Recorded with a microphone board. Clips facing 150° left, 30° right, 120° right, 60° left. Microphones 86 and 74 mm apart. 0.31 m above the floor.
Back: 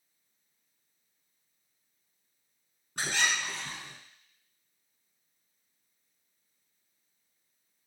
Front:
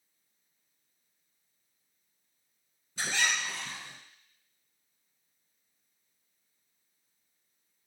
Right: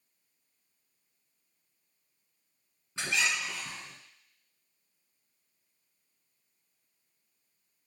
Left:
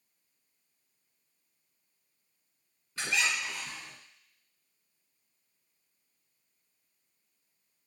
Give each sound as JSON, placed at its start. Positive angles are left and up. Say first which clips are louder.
{"t": 3.0, "sound": "a squeak", "louder": "back 1 dB, even", "azimuth_deg": 175, "distance_m": 2.0}